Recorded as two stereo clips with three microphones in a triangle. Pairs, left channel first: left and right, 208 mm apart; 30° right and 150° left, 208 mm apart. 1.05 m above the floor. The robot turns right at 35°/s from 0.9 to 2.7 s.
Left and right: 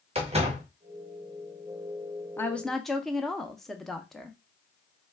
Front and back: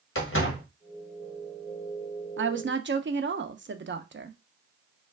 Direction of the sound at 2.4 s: 165° left.